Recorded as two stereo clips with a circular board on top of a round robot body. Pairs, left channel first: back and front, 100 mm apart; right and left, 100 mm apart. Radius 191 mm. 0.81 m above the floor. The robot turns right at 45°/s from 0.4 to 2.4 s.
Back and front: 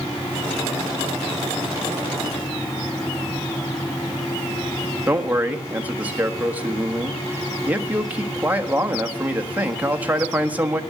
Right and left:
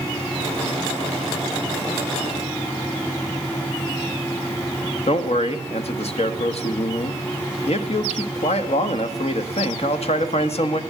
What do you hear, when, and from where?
5.1 s a man speaking: 75° right, 1.5 m